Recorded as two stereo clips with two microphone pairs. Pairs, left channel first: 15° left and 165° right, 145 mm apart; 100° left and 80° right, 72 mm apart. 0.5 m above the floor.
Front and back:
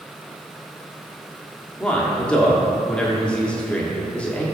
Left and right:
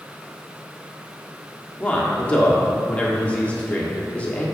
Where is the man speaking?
85° left, 1.3 m.